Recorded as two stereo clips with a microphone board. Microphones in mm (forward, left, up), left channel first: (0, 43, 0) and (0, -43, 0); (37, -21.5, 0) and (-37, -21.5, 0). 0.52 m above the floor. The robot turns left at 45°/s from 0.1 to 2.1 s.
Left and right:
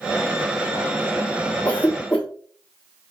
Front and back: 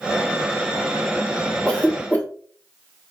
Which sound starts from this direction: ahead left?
A cough, at 1.6 s.